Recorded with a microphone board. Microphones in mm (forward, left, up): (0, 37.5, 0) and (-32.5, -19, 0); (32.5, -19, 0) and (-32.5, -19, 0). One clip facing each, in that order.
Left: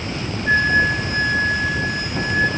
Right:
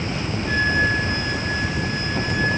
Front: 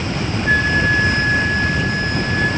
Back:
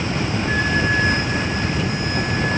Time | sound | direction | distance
0.5 | a flute | 30° left | 3 m